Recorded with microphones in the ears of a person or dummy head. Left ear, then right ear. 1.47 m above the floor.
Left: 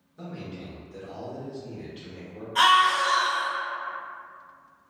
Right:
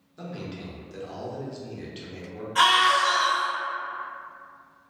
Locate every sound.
0.2 s a man speaking: 30° right (ahead or behind), 0.9 m
2.5 s a scream: 5° left (ahead or behind), 1.7 m